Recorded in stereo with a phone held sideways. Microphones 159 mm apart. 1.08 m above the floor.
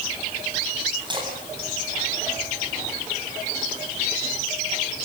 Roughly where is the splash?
Right.